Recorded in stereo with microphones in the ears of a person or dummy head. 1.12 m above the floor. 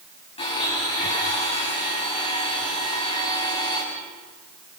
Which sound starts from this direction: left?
A blender, at 0.4 s.